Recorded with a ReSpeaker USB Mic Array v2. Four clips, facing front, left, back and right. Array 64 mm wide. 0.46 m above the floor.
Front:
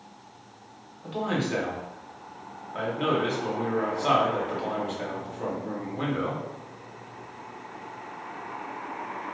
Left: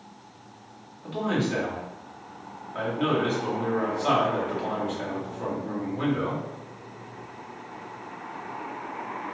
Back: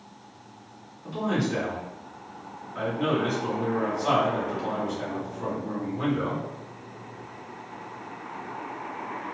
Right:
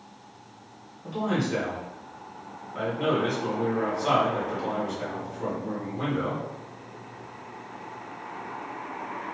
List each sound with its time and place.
1.0 s a man speaking: 30° left, 0.9 m